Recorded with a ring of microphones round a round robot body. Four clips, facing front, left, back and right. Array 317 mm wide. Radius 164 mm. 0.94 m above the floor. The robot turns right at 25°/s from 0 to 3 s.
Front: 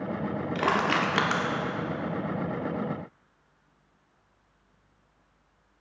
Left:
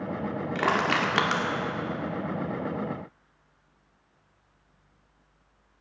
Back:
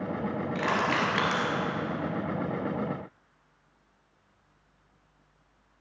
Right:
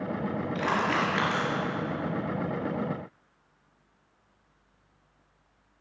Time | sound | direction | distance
0.6 | crushing | 45° left | 2 m